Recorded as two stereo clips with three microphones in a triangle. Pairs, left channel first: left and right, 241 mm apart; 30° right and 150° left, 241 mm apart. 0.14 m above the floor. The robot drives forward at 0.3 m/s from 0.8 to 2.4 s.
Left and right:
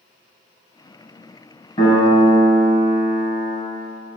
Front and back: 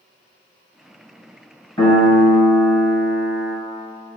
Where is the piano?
35° left, 1.1 m; by 3.6 s 45° left, 1.0 m.